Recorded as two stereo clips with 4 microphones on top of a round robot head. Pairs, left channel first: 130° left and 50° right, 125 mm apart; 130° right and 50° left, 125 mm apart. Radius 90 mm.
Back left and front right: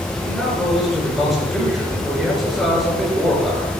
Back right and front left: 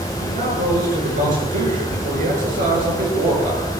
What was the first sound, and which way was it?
A man speaking, 35° left.